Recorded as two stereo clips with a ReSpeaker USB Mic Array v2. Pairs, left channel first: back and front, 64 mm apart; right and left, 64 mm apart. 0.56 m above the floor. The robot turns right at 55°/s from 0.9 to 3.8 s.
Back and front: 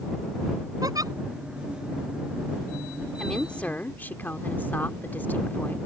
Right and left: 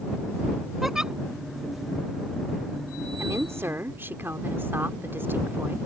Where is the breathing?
I don't hear breathing.